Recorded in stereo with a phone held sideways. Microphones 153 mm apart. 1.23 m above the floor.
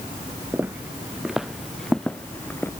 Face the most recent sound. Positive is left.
turn(degrees=15)  # may be behind; listen again after turning